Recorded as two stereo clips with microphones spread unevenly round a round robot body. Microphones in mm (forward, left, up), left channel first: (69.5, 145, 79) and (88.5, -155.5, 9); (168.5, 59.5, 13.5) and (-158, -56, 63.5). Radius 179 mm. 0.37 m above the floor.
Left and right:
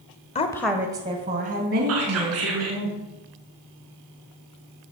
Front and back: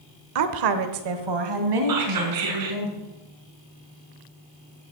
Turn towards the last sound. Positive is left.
turn(degrees=-130)